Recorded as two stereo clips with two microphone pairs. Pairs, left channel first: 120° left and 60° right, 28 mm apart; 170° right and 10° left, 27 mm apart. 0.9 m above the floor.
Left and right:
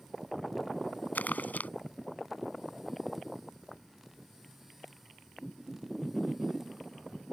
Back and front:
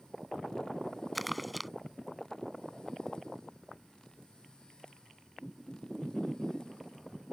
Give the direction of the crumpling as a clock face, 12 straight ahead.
9 o'clock.